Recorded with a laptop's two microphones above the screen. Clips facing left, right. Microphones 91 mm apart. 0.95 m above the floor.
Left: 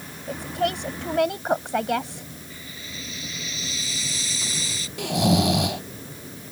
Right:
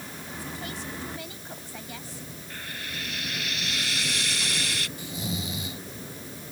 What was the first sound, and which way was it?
A woman speaking, 75° left (ahead or behind).